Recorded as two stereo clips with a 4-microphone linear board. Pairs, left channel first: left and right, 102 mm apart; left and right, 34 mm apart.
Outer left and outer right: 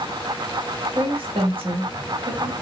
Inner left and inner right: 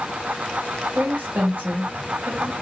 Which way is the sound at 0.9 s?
60° right (ahead or behind).